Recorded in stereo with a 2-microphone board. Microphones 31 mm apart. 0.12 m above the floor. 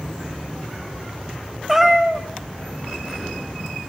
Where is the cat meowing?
Centre (ahead or behind), 3.5 m.